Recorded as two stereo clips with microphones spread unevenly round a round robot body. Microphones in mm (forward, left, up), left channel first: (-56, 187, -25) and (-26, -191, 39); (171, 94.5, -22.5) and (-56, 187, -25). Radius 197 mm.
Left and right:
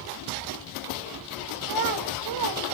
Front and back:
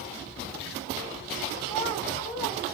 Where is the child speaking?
120° right, 1.5 m.